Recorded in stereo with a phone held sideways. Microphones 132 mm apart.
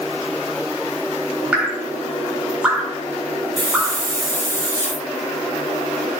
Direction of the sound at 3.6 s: 20° right (ahead or behind).